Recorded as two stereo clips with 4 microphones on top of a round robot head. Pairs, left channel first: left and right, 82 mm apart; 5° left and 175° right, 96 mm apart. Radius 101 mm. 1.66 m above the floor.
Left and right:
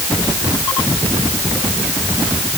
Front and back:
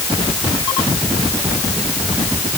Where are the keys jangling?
No keys jangling in this recording.